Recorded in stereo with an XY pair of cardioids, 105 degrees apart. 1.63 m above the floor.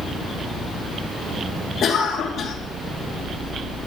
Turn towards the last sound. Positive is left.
turn(degrees=55)